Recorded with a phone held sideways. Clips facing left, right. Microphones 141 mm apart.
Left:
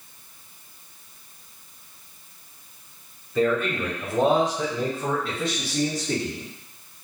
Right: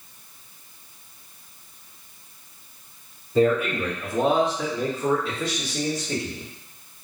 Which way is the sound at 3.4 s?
30° right (ahead or behind).